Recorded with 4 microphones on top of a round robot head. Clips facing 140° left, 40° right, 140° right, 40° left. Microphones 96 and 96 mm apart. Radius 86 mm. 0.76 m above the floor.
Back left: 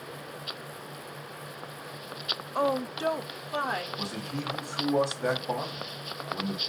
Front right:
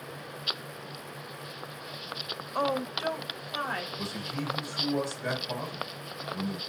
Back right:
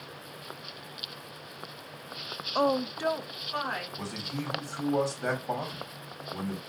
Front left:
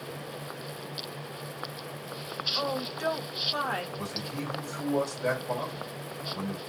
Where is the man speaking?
165° left, 2.5 m.